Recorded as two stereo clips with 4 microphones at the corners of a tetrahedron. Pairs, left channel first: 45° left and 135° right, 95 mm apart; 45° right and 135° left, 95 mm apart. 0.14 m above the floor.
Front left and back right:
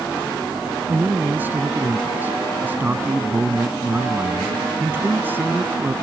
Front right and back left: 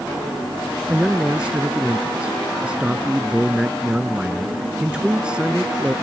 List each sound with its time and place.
0.9 s a man speaking: 160° right